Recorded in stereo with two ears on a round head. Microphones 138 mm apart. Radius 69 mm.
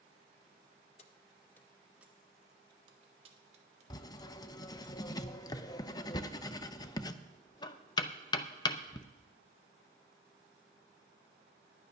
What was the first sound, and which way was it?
Keys jangling, 40° left (ahead or behind).